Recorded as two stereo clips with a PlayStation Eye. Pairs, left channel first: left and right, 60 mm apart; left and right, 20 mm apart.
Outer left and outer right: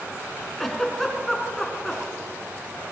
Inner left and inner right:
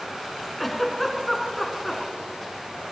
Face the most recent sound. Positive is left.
turn(degrees=5)  # may be behind; listen again after turning